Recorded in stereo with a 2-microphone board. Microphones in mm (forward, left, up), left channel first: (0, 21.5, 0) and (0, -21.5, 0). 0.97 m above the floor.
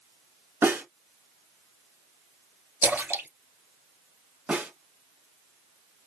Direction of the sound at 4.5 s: 30° right (ahead or behind).